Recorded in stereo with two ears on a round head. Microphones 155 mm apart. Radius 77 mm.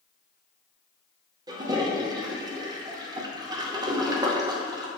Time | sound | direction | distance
1.5 | a toilet flushing | 25° right (ahead or behind) | 0.6 m